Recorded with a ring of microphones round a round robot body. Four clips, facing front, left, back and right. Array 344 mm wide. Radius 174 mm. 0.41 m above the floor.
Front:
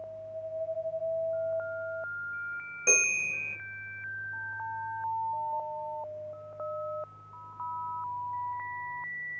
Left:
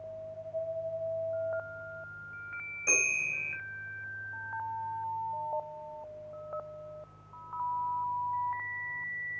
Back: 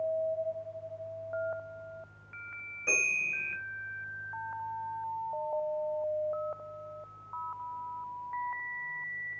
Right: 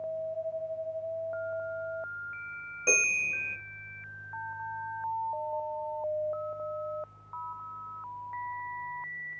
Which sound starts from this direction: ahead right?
A bell, at 2.9 s.